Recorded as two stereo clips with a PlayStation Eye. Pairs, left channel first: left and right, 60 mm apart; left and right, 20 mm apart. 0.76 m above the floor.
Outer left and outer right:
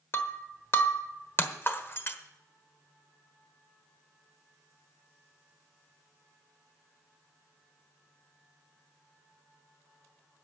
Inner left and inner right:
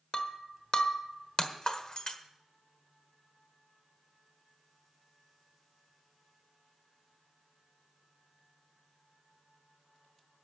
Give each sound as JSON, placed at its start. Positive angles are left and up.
{"t": 0.1, "sound": "breaking glass", "side_deg": 40, "distance_m": 1.2}